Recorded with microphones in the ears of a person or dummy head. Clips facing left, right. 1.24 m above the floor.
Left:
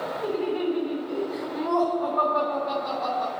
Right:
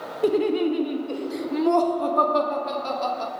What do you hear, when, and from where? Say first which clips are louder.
0.2 s laughter: right 6 dB; 40° right (ahead or behind), 0.9 m